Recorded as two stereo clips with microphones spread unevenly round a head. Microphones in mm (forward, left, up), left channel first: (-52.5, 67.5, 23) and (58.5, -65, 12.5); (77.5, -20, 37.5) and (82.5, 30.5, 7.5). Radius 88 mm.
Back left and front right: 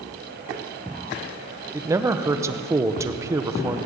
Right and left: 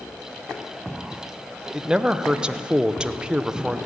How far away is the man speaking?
About 0.9 m.